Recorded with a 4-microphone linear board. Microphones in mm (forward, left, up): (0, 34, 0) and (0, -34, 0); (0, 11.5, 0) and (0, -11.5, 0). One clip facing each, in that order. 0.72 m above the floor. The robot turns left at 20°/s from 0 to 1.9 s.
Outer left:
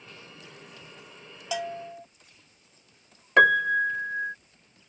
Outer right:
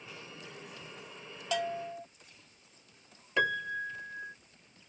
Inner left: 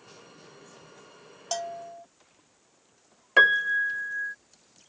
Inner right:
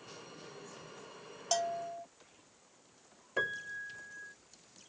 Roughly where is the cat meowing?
I don't hear a cat meowing.